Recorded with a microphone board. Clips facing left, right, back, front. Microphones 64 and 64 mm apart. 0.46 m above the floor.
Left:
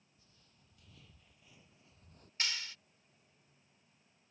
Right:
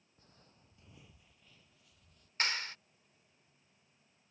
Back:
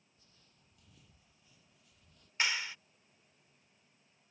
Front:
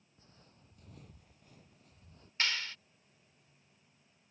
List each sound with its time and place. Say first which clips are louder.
0.2 s footsteps: right 8 dB, front 9 dB; 50° right; by 2.3 s 55° left
2.4 s a clap: right 5 dB, back 1 dB; 110° right